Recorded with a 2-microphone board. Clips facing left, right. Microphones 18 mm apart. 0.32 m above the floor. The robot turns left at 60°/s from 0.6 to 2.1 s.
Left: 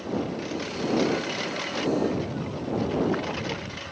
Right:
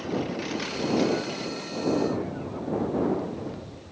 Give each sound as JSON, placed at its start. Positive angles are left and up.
{"t": 0.0, "sound": "a lawn mower", "side_deg": -20}